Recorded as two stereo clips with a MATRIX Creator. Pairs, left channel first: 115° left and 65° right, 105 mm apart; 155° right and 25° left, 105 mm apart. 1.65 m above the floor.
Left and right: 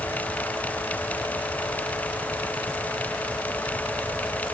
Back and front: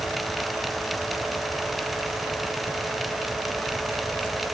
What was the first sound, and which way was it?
Only background noise.